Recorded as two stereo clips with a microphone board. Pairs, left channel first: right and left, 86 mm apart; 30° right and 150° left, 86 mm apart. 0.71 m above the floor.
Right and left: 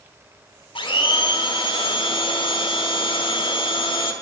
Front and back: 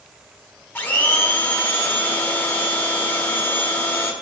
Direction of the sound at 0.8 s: 95° right.